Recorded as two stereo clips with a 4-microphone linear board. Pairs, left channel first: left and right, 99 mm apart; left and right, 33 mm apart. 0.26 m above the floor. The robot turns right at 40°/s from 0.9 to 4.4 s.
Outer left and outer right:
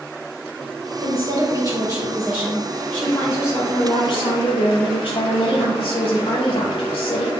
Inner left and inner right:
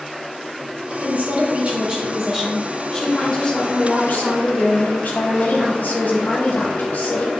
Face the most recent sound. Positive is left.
turn(degrees=70)